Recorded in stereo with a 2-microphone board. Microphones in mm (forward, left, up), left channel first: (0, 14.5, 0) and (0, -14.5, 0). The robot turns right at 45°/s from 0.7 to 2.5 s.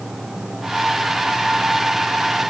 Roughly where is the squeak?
No squeak in this recording.